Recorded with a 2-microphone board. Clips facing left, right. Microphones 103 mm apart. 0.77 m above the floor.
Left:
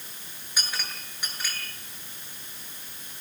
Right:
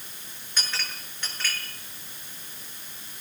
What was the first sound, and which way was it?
A clink, 10° left (ahead or behind).